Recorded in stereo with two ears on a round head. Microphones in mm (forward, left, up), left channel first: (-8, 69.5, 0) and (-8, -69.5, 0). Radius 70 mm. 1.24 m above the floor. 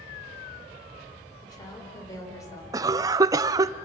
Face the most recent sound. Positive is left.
turn(degrees=-20)  # may be behind; listen again after turning